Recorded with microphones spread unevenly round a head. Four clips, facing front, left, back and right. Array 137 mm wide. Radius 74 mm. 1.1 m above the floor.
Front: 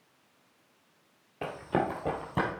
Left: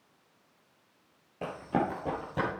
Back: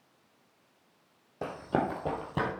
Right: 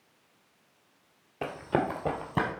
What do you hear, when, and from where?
1.4 s running footsteps: 130° right, 1.6 m; by 2.5 s 120° right, 2 m